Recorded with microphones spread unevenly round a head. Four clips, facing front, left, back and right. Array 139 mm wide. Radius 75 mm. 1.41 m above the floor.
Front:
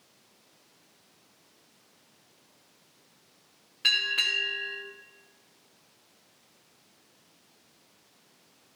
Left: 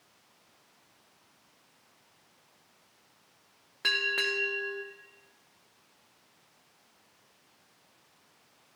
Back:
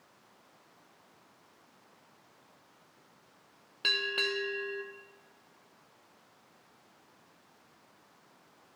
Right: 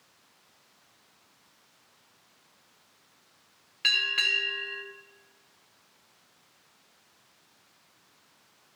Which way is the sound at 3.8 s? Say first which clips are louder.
Left 1 dB, even; 140° left.